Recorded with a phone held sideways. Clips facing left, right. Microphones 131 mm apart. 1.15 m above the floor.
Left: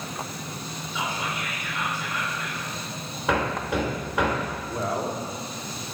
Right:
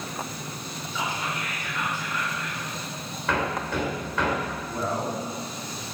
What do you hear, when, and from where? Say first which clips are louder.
0.9 s whispering: even; 15° left (ahead or behind), 4.5 m
3.3 s hammering: left 2 dB; 15° left (ahead or behind), 2.5 m
4.7 s a man speaking: left 1 dB; 5° left (ahead or behind), 2.5 m